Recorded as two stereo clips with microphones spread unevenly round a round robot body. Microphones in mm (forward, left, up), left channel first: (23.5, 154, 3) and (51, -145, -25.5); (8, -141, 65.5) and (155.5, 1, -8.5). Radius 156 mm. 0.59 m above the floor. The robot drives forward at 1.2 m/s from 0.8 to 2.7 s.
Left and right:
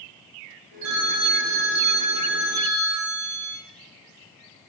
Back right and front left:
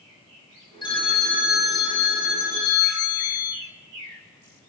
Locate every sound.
0.8 s a phone ringing: 60° right, 2 m; by 3.6 s 125° right, 2.5 m